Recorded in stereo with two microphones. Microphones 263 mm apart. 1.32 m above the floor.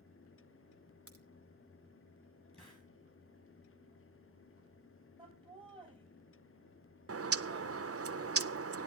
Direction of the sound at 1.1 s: 55° left (ahead or behind).